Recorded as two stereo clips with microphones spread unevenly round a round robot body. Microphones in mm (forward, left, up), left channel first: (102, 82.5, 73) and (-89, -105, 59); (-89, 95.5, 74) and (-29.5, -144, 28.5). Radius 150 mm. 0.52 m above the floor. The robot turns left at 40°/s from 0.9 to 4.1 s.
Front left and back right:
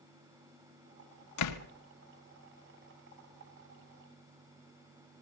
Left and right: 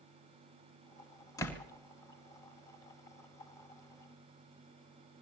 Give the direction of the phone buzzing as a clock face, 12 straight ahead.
I don't hear a phone buzzing.